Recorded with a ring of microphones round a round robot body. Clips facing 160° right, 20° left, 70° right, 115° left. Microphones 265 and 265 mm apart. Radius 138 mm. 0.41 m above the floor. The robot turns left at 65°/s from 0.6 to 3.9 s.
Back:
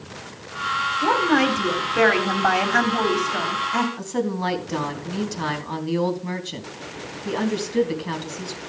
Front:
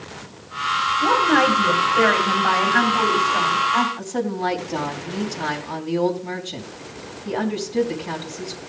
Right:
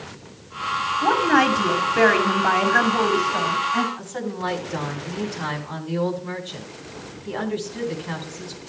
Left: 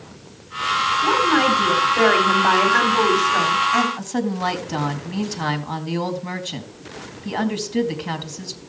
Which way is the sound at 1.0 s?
55° right.